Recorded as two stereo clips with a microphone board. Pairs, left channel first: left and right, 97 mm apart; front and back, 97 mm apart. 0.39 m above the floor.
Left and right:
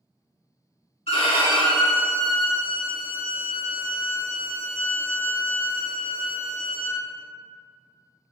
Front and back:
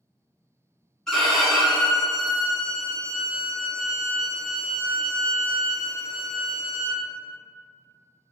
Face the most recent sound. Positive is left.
turn(degrees=85)